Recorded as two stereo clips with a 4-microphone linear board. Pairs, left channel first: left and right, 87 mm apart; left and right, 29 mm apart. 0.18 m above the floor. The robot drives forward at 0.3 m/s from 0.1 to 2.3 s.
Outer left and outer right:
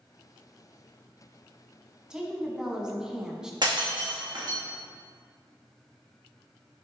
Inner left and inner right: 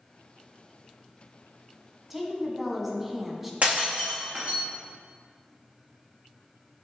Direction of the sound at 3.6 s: 55° right (ahead or behind).